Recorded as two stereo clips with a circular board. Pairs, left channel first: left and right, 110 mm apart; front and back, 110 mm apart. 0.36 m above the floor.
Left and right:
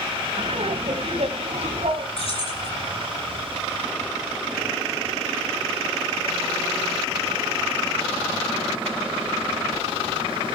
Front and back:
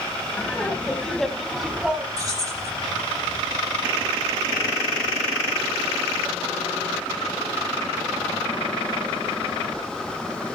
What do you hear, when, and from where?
0.4 s laughter: 70° right, 2.5 m; by 2.1 s 100° right, 3 m
2.2 s keys jangling: 120° left, 8 m